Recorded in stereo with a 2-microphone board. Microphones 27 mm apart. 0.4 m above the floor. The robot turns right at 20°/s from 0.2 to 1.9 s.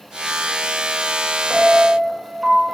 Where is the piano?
25° right (ahead or behind), 1.0 m; by 2.8 s 30° right (ahead or behind), 1.0 m.